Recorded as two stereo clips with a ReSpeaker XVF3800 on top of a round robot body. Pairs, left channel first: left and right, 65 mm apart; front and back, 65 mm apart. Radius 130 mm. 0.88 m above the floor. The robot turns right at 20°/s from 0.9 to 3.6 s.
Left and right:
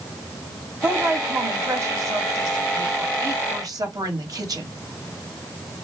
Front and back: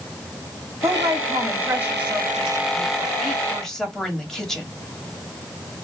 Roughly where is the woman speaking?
Behind right.